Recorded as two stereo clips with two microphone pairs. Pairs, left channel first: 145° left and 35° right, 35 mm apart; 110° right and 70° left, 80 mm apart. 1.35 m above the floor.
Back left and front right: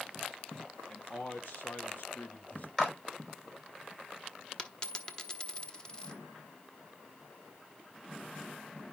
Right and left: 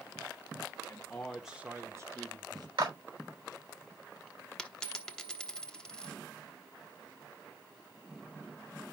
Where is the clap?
65° left, 4.5 m.